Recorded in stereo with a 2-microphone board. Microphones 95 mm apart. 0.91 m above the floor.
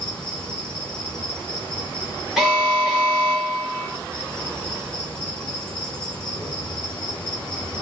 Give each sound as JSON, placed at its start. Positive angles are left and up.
{"t": 0.0, "sound": "an insect", "side_deg": 15, "distance_m": 1.5}
{"t": 2.4, "sound": "an alarm", "side_deg": -5, "distance_m": 0.9}